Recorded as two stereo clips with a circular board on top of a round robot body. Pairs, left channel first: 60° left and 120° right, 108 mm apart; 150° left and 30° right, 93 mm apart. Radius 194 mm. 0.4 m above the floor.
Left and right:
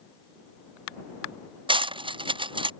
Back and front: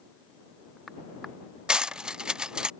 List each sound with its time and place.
1.7 s cutlery clinking: 110° right